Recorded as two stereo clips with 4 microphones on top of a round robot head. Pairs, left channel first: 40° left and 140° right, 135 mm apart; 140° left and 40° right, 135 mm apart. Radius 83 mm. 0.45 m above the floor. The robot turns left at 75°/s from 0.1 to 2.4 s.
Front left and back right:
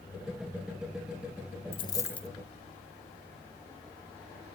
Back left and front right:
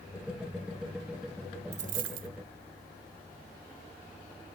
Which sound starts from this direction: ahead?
A dropped coin, at 1.7 s.